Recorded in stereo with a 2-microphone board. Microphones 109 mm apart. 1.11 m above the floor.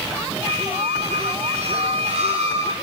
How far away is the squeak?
About 9.5 m.